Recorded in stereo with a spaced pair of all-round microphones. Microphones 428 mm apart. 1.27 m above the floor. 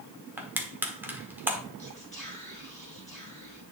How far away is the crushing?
About 1.1 m.